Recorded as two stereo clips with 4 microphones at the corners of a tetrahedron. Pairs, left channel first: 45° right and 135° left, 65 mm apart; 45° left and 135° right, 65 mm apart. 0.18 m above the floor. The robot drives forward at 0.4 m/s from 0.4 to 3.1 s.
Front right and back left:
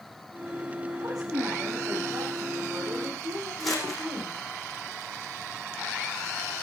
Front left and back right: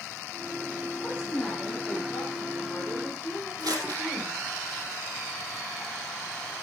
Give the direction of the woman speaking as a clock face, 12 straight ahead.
8 o'clock.